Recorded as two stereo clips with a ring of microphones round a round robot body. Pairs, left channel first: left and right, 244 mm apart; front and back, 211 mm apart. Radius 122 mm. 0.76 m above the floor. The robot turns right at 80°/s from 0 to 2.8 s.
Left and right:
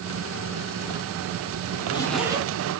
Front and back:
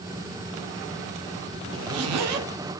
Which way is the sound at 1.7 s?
145° left.